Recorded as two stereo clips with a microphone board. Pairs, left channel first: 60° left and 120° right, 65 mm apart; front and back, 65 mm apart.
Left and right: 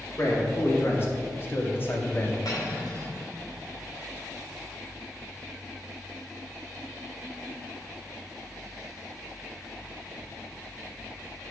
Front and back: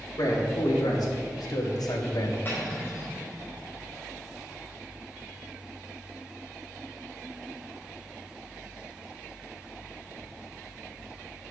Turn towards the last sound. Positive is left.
turn(degrees=55)